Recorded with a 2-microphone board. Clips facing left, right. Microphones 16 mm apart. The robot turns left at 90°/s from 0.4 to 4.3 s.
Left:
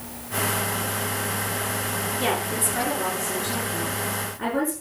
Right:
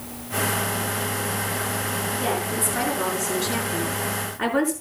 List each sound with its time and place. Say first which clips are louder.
2.2 s a woman speaking: left 1 dB; 35° left, 5 m; by 4.7 s 150° right, 5 m